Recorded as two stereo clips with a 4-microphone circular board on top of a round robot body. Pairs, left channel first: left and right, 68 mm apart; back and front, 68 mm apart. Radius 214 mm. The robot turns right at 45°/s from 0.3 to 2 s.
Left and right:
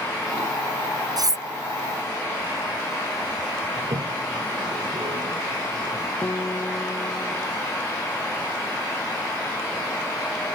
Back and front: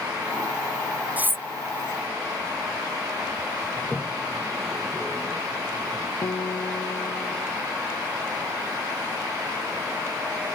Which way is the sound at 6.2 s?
150° left.